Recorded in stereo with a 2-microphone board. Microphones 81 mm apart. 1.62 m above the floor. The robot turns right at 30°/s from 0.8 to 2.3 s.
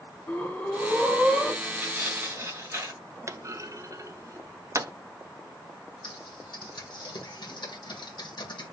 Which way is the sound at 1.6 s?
20° right (ahead or behind).